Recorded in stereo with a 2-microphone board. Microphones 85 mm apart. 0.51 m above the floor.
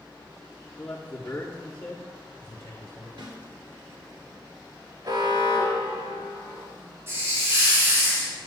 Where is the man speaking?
15° left (ahead or behind), 0.7 m; by 3.1 s 25° left (ahead or behind), 1.5 m.